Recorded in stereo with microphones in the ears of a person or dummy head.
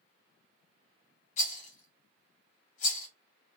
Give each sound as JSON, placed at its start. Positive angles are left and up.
{"t": 1.4, "sound": "a rattle", "side_deg": 45, "distance_m": 1.4}